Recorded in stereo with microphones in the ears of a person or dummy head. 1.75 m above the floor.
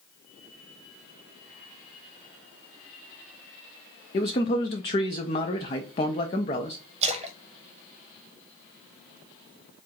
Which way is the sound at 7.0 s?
40° right (ahead or behind).